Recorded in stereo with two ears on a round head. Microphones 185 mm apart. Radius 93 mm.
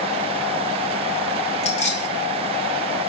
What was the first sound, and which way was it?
Keys jangling, 35° left (ahead or behind).